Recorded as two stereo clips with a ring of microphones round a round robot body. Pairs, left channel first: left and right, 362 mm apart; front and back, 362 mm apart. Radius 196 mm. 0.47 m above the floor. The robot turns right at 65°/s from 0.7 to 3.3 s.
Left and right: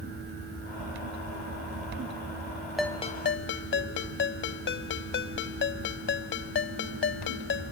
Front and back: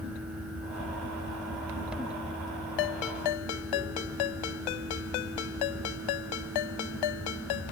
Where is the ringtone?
Straight ahead; by 7.7 s 35° left.